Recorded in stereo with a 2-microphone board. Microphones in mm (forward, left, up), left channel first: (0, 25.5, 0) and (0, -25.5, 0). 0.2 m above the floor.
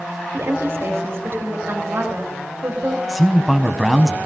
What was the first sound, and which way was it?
A woman speaking, 55° right (ahead or behind).